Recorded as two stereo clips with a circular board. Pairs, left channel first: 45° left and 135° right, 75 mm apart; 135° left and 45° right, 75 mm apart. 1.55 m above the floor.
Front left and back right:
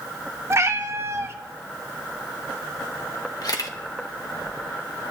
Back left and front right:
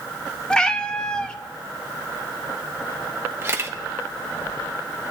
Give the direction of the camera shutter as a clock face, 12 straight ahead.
12 o'clock.